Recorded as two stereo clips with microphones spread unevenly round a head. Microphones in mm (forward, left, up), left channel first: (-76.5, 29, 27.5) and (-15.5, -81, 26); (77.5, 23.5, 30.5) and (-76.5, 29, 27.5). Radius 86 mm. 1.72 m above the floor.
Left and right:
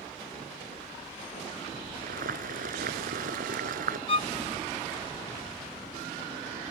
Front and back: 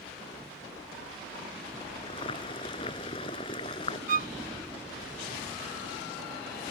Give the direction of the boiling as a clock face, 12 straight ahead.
2 o'clock.